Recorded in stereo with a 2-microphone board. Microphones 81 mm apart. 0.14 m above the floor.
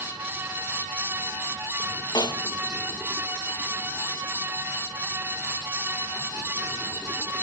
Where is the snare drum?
60° left (ahead or behind), 0.9 m.